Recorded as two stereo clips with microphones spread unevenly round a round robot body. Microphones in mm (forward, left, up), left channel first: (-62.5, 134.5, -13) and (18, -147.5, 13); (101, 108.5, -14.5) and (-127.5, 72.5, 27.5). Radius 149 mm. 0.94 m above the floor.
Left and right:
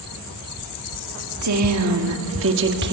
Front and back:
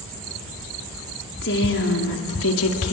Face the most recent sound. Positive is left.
turn(degrees=-15)